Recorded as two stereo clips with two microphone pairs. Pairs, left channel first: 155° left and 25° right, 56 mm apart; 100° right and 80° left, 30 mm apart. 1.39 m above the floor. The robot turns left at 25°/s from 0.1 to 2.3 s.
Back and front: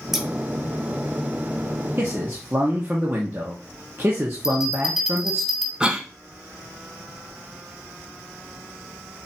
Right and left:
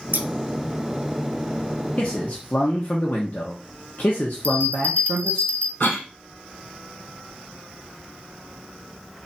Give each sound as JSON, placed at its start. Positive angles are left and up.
{"t": 0.1, "sound": "scissors", "azimuth_deg": 55, "distance_m": 0.6}
{"t": 2.0, "sound": "a man speaking", "azimuth_deg": -65, "distance_m": 1.0}
{"t": 4.4, "sound": "a bell", "azimuth_deg": -100, "distance_m": 1.3}
{"t": 5.8, "sound": "a cough", "azimuth_deg": -100, "distance_m": 1.2}